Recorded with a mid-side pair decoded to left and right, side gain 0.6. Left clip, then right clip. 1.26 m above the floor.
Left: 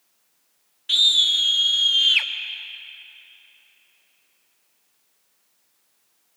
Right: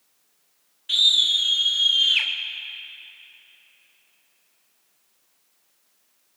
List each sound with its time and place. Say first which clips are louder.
0.9 s a scream: left 1 dB; 25° left, 1.0 m